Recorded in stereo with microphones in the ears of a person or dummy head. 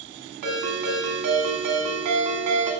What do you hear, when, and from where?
0.4 s a ringtone: 55° right (ahead or behind), 1.6 m